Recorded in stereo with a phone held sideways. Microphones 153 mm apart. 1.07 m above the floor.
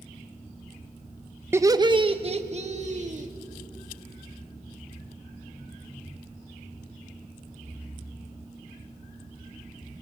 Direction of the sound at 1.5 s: 15° right (ahead or behind).